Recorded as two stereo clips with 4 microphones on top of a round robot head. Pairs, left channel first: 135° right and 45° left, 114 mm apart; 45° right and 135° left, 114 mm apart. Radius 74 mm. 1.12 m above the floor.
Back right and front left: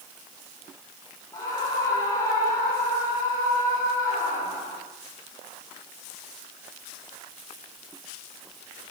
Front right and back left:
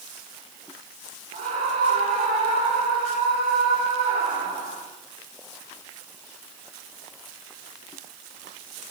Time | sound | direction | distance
1.3 | a scream | 165° left | 4.5 m